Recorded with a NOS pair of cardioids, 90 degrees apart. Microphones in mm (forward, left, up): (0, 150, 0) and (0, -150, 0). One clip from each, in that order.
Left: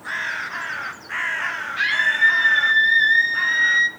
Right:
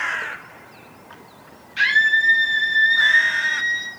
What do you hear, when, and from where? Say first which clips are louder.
1.8 s a scream: right 2 dB; 25° right, 1.7 m; by 3.9 s 15° left, 1.0 m